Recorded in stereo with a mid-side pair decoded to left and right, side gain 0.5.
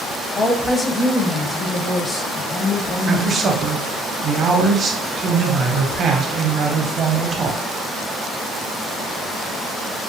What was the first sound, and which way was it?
A woman speaking, 25° left.